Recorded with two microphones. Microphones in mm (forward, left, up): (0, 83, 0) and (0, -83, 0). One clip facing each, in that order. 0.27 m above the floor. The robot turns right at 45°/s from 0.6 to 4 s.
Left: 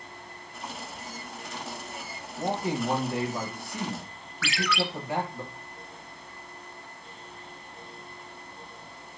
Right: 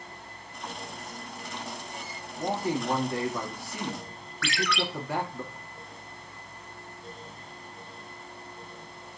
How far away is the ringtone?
About 0.5 m.